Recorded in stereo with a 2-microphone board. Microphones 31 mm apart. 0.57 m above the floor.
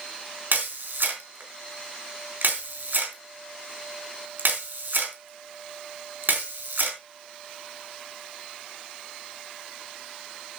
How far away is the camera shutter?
About 3.5 m.